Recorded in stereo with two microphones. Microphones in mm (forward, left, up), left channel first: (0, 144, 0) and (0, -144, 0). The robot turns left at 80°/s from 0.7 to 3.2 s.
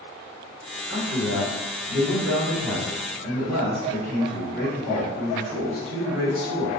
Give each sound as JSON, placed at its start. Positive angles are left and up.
{"t": 0.9, "sound": "a man speaking", "azimuth_deg": -35, "distance_m": 1.5}